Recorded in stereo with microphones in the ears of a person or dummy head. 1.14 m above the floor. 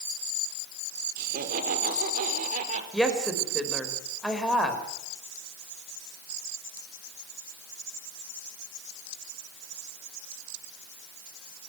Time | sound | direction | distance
1.2 | laughter | 55° right (ahead or behind) | 4 m
2.9 | a woman speaking | 5° right (ahead or behind) | 4.5 m